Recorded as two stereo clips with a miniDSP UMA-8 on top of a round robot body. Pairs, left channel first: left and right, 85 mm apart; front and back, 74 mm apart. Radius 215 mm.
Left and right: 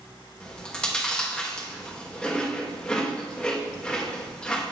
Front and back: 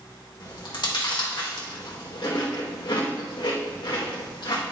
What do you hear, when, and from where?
0.4 s chewing: 10° left, 2 m